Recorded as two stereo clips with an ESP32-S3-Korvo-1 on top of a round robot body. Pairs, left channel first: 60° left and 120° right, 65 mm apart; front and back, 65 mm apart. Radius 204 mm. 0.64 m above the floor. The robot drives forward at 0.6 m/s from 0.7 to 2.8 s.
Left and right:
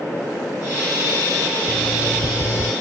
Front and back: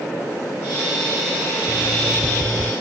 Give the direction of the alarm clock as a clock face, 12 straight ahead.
9 o'clock.